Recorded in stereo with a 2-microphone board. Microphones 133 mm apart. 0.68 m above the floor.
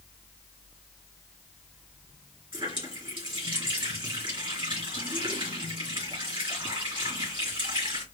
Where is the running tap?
40° right (ahead or behind), 2.5 m.